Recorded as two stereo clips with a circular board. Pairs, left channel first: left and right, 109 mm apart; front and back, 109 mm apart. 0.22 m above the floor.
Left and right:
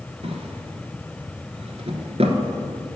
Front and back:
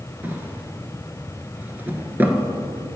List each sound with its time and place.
0.2 s a drawer: 110° right, 0.9 m